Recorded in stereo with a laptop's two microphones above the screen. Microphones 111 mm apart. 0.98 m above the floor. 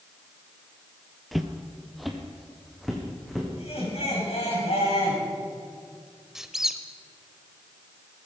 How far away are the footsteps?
About 1.1 m.